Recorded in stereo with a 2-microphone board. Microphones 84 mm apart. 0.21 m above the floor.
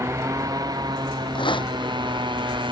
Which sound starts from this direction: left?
A rattle, at 1.4 s.